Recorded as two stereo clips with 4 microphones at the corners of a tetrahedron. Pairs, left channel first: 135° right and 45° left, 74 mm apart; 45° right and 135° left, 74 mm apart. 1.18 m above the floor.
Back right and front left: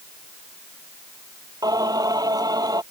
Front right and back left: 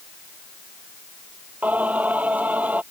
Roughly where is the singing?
Left.